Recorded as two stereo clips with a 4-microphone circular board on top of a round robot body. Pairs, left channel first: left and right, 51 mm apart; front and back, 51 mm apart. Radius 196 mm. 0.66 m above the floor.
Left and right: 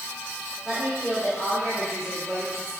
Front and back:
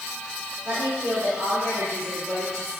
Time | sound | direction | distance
0.7 | a woman speaking | 160° right | 3 m